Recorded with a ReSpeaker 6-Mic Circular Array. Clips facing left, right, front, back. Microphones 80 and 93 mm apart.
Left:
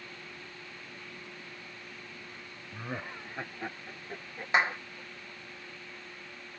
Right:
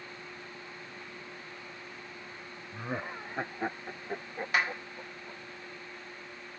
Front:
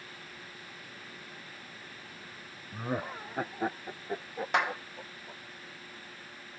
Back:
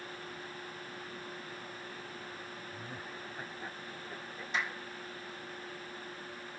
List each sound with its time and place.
2.7 s laughter: straight ahead; by 5.4 s 30° right
4.5 s a clap: 25° left